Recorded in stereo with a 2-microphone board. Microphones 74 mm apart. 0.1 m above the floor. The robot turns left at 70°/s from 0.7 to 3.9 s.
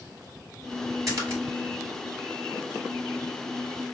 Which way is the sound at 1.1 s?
45° right (ahead or behind).